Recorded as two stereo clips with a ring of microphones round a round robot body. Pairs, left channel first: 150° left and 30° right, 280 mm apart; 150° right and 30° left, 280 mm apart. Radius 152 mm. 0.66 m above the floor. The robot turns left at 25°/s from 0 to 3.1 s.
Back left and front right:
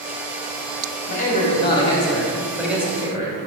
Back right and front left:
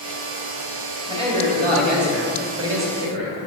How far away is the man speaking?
About 1.8 m.